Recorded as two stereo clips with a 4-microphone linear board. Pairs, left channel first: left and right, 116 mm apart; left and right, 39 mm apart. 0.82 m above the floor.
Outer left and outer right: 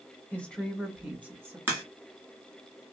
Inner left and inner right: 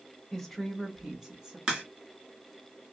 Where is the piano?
I don't hear a piano.